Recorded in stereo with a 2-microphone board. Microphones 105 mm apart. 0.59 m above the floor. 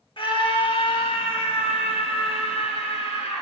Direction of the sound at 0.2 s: 50° left (ahead or behind).